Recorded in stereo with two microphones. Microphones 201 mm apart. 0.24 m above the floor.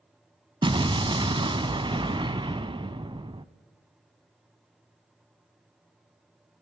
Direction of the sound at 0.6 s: 25° right (ahead or behind).